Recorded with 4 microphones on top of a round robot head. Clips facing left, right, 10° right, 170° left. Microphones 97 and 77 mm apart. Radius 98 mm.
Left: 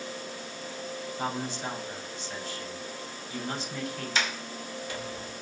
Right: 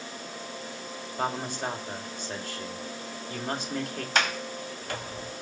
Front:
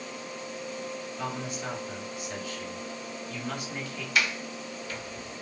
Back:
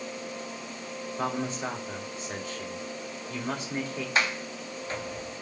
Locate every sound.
1.2 s a man speaking: 130° right, 2.5 m
4.2 s a sliding door: 130° right, 0.8 m